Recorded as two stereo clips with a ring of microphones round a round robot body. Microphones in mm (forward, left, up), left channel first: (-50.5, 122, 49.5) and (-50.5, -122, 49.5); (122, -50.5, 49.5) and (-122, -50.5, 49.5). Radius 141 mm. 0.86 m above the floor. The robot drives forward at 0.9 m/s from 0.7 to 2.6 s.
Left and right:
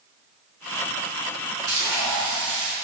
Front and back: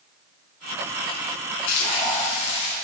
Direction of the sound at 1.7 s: 10° right.